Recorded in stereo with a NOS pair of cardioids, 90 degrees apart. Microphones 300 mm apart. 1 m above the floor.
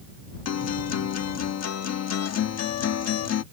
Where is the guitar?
55° left.